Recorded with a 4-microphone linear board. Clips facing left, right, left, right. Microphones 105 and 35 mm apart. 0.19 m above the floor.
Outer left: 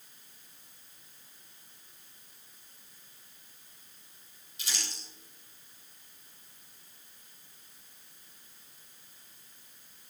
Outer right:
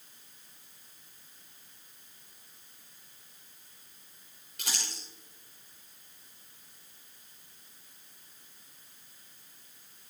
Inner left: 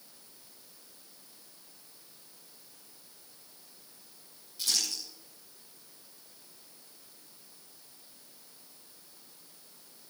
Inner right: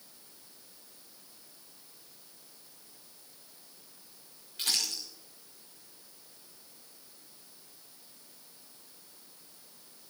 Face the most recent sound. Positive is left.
turn(degrees=-60)  # may be behind; listen again after turning